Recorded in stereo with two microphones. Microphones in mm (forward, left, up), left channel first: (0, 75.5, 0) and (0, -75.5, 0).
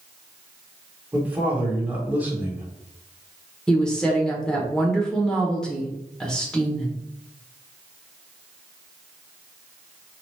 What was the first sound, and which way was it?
A man speaking, 10° right (ahead or behind).